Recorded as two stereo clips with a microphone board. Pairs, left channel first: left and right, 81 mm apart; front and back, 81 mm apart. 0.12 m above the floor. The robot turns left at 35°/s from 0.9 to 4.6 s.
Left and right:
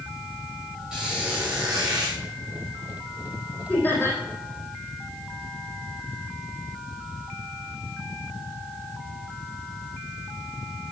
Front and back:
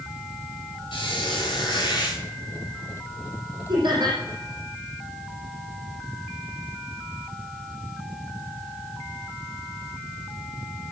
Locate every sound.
0.9 s a squeak: 5° right, 6.5 m; by 2.2 s 50° right, 6.5 m
3.7 s laughter: 165° left, 5 m; by 4.2 s 145° left, 5 m